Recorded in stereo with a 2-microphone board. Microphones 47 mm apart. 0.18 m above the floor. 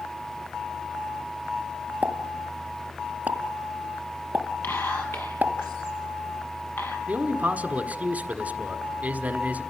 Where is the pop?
40° right (ahead or behind), 1.0 m.